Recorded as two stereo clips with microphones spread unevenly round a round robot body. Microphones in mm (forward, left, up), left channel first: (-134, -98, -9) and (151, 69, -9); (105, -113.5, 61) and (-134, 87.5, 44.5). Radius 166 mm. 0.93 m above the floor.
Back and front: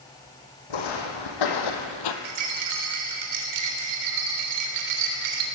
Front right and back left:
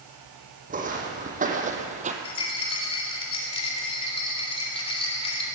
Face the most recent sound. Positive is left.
turn(degrees=35)